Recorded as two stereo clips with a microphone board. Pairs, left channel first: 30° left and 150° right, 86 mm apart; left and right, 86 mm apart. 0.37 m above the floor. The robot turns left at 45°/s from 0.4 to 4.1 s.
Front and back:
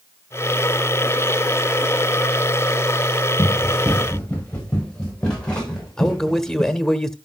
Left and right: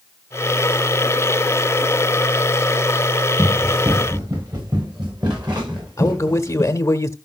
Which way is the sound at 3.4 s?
10° right.